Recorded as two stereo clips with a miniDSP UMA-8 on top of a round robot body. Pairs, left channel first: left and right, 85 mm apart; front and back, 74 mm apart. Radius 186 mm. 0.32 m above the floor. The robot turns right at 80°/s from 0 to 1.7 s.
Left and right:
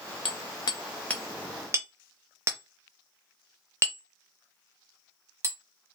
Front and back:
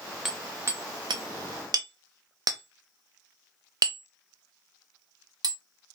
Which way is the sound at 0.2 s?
95° left.